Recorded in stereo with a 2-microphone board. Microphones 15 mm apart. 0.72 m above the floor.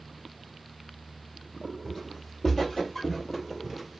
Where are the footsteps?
35° left (ahead or behind), 1.8 m; by 4.0 s 5° right (ahead or behind), 1.1 m.